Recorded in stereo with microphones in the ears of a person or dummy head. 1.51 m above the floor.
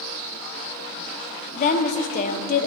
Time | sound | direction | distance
1.6 | a woman speaking | 40° left (ahead or behind) | 0.7 m